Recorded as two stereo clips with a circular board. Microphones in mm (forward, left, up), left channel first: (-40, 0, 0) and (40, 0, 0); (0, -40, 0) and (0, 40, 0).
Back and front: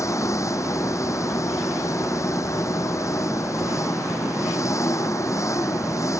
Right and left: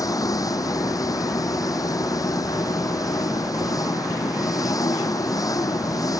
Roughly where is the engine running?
Behind right.